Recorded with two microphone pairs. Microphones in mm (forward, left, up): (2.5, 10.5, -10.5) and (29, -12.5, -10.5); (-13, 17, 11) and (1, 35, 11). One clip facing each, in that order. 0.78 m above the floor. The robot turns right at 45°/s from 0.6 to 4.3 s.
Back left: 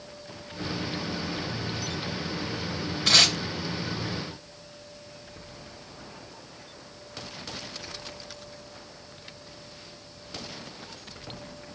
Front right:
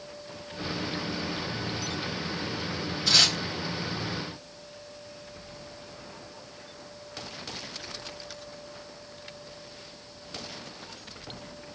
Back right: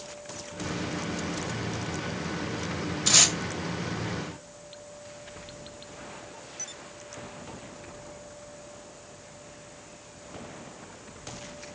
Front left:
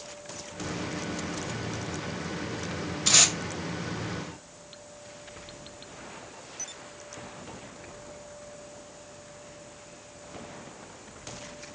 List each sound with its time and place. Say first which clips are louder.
3.1 s tape being pulled: back left 2 dB, even; 130° left, 0.9 m; by 3.3 s 140° left, 0.9 m